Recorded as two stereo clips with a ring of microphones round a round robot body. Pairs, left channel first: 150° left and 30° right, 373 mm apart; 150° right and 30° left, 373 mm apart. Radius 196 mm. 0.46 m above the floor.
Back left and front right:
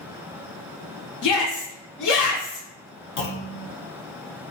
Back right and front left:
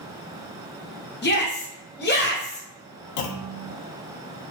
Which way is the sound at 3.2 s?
150° right.